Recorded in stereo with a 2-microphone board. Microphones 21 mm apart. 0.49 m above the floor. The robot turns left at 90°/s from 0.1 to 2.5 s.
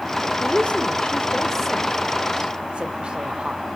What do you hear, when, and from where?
0.4 s a woman speaking: 45° left (ahead or behind), 1.6 m; by 3.6 s 50° right (ahead or behind), 1.6 m